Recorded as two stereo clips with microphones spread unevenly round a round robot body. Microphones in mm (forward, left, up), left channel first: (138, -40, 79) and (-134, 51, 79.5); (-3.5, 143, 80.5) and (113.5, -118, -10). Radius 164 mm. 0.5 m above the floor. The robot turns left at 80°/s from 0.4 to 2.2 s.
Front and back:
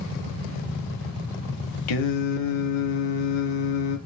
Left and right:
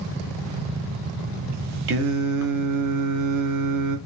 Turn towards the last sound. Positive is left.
turn(degrees=-35)